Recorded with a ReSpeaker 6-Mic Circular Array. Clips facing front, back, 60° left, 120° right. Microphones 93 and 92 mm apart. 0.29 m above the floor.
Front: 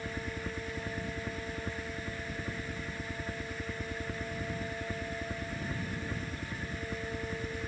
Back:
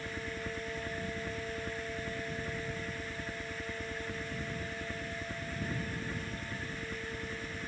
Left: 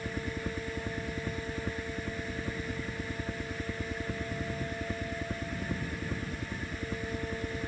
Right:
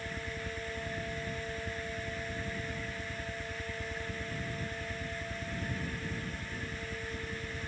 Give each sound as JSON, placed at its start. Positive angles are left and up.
{"t": 0.0, "sound": "a helicopter", "azimuth_deg": 80}